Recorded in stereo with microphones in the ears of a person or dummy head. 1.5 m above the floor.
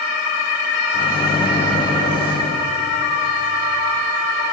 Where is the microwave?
25° left (ahead or behind), 1.0 m.